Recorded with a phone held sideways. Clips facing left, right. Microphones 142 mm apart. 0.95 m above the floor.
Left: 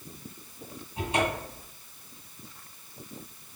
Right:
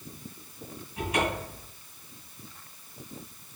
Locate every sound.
1.0 s a cupboard door: 25° left (ahead or behind), 2 m